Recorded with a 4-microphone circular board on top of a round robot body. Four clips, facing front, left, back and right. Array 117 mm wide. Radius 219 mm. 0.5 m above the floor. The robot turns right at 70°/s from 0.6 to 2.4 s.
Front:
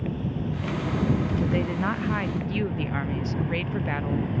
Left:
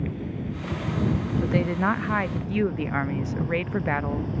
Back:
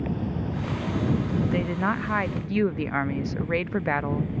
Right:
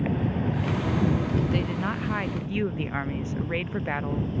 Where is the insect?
105° right; by 4.4 s 20° left.